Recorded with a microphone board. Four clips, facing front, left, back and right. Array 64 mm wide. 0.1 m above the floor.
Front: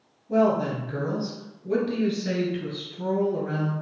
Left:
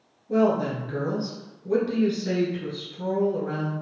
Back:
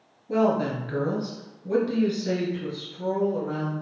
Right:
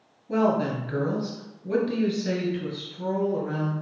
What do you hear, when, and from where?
0.3 s a woman speaking: 145° right, 1.6 m; by 3.7 s straight ahead, 1.8 m